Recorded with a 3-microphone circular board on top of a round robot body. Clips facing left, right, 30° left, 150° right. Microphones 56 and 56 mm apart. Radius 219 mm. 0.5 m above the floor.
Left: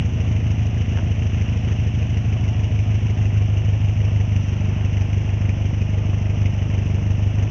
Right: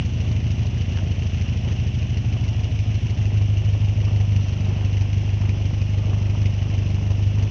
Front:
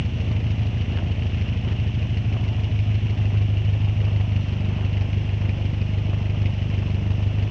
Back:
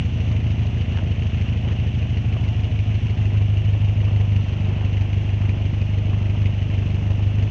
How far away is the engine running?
About 0.8 m.